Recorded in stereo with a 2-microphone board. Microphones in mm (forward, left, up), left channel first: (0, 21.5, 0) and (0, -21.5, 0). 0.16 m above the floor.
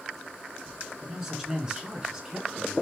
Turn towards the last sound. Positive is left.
turn(degrees=-15)  # may be behind; listen again after turning